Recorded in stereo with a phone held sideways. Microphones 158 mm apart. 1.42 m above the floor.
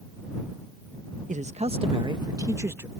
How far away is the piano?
No piano in this recording.